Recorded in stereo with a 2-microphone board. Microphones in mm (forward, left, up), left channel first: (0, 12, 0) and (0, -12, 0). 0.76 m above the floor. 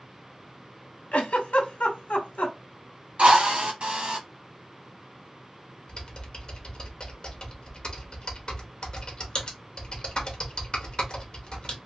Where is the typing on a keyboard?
40° left (ahead or behind), 1.0 m.